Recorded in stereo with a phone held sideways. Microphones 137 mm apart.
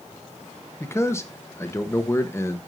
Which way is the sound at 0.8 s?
20° left (ahead or behind).